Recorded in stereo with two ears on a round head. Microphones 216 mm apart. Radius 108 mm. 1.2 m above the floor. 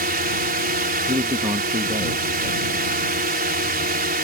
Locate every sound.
0.0 s a drone: 40° right (ahead or behind)
1.1 s a man speaking: 20° right (ahead or behind)